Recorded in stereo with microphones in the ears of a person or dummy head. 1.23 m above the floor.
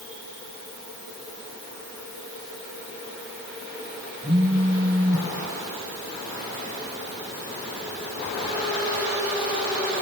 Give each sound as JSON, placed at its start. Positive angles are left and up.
{"t": 4.2, "sound": "a phone buzzing", "side_deg": -15, "distance_m": 0.8}